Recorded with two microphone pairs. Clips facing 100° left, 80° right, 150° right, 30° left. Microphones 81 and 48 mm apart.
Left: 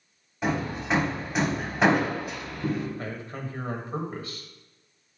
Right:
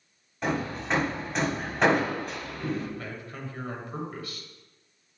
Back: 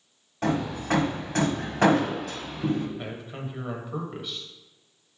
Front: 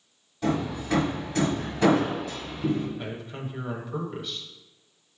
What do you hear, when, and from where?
0.4 s hammering: 175° right, 1.4 m
3.0 s a man speaking: 135° left, 1.5 m